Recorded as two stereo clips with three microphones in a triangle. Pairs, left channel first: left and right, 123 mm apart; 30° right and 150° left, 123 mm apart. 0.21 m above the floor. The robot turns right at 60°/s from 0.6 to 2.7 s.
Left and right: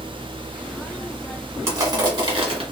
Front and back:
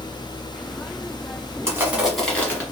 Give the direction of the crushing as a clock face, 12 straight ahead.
5 o'clock.